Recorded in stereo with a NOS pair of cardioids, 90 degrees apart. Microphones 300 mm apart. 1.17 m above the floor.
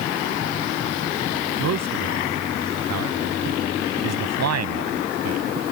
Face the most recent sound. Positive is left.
turn(degrees=-60)